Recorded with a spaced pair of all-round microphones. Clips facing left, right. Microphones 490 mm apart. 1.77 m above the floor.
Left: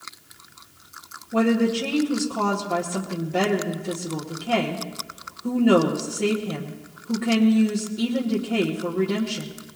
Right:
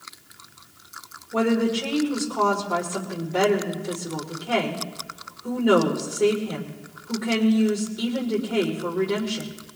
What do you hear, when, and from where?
1.3 s a woman speaking: 45° left (ahead or behind), 2 m